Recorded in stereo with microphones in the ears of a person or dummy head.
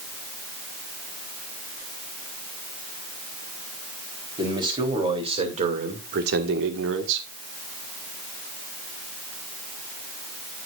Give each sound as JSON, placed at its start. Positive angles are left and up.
{"t": 4.4, "sound": "a man speaking", "side_deg": -25, "distance_m": 4.0}